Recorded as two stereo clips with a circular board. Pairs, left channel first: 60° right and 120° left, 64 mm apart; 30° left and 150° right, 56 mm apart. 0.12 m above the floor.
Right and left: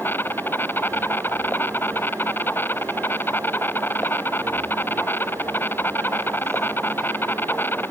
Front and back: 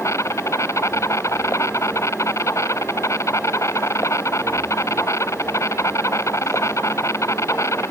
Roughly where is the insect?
Ahead.